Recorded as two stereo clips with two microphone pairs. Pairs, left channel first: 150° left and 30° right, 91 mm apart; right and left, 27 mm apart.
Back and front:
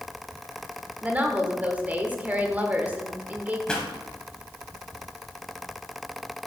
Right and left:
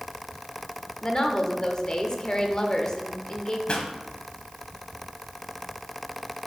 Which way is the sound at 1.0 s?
85° right.